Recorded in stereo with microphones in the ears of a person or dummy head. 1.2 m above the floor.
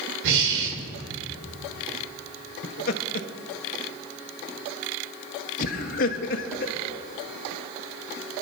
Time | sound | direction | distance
0.2 | breathing | 60° right (ahead or behind) | 1.4 m
2.6 | laughter | 50° left (ahead or behind) | 0.8 m